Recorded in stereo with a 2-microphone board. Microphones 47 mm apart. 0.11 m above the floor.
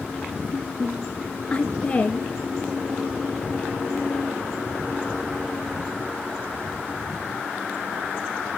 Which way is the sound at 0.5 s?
25° left (ahead or behind).